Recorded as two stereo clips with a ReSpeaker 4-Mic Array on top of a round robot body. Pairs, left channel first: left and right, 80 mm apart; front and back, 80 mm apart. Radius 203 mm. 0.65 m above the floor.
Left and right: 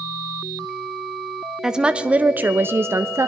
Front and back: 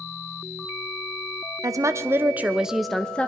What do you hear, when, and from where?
1.6 s a woman speaking: 170° right, 1.0 m; by 3.3 s 65° right, 0.9 m